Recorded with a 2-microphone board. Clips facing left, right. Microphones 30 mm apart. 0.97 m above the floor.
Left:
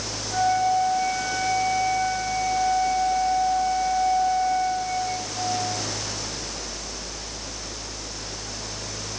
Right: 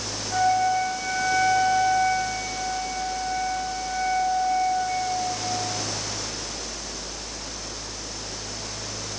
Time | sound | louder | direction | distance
0.3 | a flute | even | 20° right (ahead or behind) | 6 m